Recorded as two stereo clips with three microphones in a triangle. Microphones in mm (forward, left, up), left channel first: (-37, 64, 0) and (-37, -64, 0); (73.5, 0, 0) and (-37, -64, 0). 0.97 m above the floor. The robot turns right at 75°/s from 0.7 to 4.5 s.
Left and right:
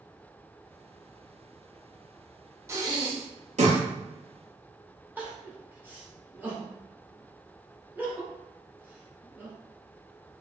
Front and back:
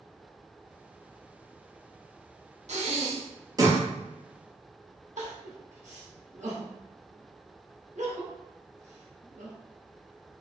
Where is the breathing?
160° right, 0.7 m; by 3.8 s 75° right, 0.7 m.